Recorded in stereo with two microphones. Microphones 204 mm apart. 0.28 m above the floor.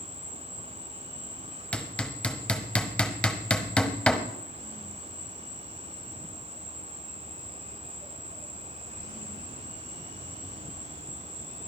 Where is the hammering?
5° left (ahead or behind), 1.1 m.